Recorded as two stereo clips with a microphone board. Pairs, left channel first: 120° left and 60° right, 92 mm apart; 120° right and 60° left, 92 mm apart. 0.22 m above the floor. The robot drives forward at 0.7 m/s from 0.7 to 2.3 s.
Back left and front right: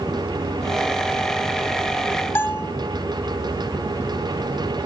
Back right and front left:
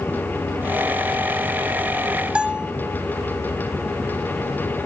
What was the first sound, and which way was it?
A bell, 120° left.